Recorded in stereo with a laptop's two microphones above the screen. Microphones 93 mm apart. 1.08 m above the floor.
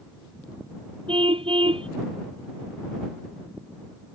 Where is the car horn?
75° right (ahead or behind).